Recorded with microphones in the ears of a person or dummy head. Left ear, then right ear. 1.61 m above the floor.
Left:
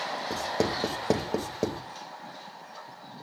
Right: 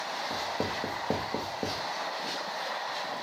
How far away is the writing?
About 1.9 m.